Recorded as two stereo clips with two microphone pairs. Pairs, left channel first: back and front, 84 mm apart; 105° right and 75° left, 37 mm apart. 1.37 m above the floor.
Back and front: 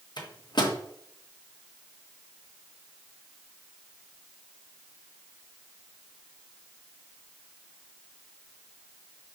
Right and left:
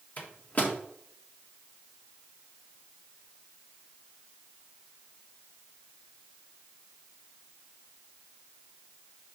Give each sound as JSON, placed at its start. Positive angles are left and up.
{"t": 0.2, "sound": "a microwave", "azimuth_deg": -155, "distance_m": 1.5}